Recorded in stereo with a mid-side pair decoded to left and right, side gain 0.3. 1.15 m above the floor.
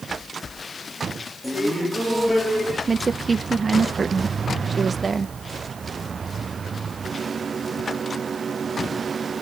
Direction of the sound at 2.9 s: 45° right.